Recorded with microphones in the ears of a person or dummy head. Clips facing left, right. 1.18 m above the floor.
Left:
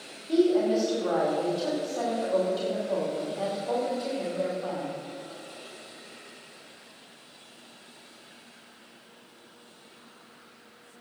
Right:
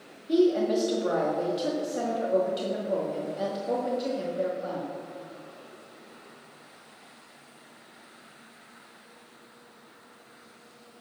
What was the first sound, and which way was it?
A woman speaking, 20° right (ahead or behind).